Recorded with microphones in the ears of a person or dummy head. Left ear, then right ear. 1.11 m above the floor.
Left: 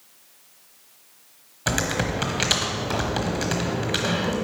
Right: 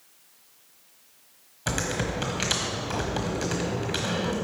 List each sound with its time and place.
1.7 s typing on a keyboard: 5° left (ahead or behind), 1.0 m